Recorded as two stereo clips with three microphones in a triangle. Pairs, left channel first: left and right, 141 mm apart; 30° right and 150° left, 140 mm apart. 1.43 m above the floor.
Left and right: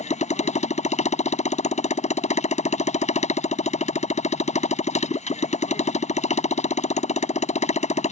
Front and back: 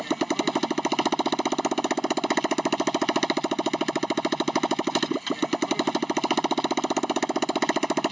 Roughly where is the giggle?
No giggle in this recording.